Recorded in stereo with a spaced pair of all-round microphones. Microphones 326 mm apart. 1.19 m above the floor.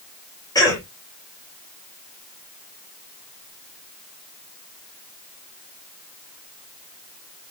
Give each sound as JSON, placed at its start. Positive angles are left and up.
{"t": 0.6, "sound": "a cough", "side_deg": 10, "distance_m": 2.5}